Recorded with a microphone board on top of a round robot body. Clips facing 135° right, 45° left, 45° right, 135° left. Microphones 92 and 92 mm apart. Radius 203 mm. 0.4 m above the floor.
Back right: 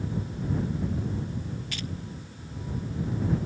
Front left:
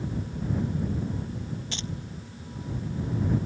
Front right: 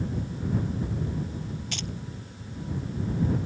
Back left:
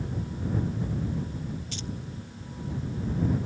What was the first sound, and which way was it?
Keys jangling, 20° right.